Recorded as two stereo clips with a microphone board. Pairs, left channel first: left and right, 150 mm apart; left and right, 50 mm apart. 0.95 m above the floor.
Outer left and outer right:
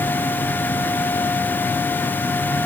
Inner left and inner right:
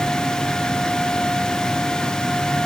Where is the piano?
I don't hear a piano.